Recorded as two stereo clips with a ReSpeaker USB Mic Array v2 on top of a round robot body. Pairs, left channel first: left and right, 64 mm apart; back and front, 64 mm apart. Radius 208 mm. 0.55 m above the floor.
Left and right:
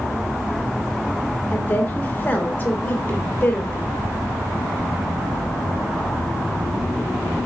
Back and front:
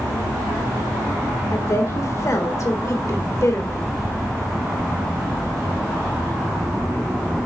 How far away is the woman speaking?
About 2 m.